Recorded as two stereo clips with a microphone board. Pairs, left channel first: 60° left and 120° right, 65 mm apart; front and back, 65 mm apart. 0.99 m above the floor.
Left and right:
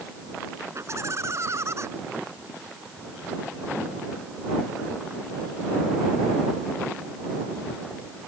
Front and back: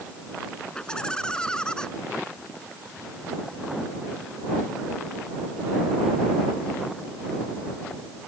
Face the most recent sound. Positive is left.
turn(degrees=-75)